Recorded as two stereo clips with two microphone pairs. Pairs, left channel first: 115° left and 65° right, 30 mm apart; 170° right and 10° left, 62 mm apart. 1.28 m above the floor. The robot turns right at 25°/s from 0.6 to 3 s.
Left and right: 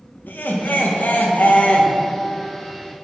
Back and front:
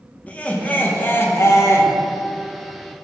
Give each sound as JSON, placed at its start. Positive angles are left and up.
{"t": 0.3, "sound": "laughter", "azimuth_deg": 125, "distance_m": 1.2}